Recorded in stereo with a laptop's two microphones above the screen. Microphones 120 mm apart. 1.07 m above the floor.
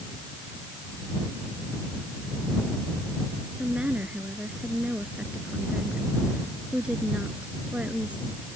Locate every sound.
3.6 s a woman speaking: 10° right (ahead or behind)